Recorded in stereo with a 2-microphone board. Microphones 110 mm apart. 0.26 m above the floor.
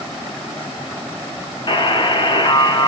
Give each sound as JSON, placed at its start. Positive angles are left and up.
{"t": 1.7, "sound": "a buzzer", "side_deg": 45, "distance_m": 0.7}